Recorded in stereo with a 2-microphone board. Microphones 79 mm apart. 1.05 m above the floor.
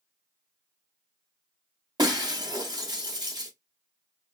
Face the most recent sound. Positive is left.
turn(degrees=-75)  # may be behind; listen again after turning